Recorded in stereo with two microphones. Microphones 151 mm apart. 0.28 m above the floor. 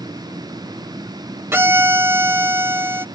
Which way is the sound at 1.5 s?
15° right (ahead or behind).